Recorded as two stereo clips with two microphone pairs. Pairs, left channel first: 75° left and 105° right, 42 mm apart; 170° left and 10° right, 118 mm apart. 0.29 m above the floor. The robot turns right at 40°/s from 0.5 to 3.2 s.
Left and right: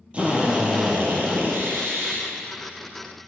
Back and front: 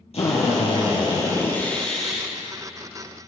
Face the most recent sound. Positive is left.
turn(degrees=-55)